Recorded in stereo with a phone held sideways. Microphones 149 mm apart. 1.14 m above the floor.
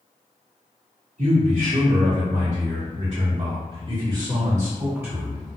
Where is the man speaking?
65° right (ahead or behind), 1.5 m; by 5.5 s centre (ahead or behind), 1.5 m.